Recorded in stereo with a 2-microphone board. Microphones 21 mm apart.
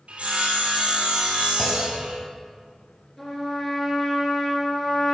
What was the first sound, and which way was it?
Sawing, 80° right.